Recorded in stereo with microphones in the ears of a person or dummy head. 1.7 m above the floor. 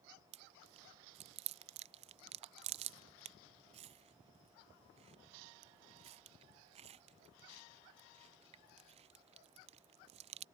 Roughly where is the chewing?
Right.